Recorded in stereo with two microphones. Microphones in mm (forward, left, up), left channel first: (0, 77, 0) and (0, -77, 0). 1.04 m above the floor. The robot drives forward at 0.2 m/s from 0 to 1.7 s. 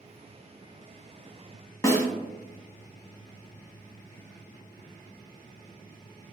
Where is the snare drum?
20° left (ahead or behind), 0.6 m.